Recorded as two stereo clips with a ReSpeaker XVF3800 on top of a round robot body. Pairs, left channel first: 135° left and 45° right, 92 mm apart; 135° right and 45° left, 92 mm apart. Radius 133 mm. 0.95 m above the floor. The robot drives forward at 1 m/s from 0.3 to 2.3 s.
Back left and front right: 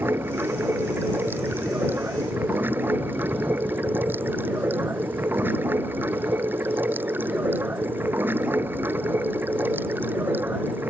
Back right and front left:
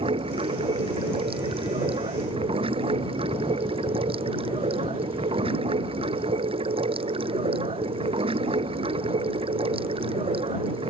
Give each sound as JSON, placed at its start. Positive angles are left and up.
{"t": 0.0, "sound": "running water", "azimuth_deg": 25}